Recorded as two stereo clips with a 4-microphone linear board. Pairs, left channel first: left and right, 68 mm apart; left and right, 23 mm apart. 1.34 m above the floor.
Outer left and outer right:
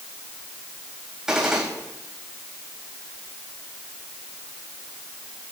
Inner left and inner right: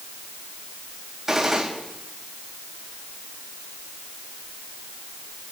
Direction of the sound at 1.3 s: 10° right (ahead or behind).